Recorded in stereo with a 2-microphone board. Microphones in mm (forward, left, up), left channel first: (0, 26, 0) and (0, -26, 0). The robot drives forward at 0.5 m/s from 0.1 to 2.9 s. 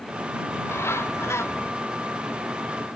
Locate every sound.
0.5 s a bird: 50° left (ahead or behind); by 1.7 s 55° left (ahead or behind)